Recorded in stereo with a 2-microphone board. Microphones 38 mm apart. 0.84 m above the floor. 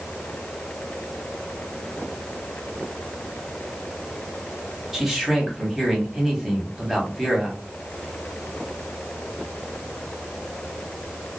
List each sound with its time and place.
4.9 s a man speaking: 5° right (ahead or behind), 1.2 m